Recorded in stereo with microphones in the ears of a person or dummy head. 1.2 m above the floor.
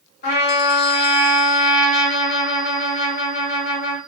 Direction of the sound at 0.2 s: 60° left (ahead or behind).